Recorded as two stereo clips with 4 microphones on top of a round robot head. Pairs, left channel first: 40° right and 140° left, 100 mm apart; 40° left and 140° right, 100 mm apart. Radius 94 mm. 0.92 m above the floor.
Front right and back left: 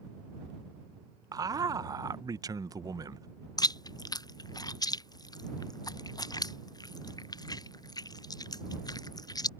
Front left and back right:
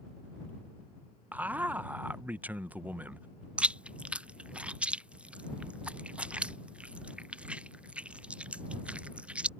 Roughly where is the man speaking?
Behind left.